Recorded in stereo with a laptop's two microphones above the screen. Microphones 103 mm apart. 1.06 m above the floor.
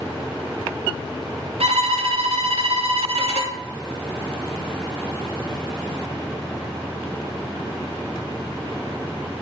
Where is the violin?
80° right, 0.5 m.